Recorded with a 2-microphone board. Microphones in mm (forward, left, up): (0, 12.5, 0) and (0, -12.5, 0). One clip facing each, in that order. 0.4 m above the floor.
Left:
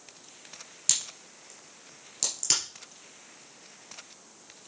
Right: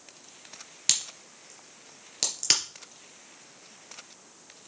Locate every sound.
0.9 s a crack: 30° right (ahead or behind), 2 m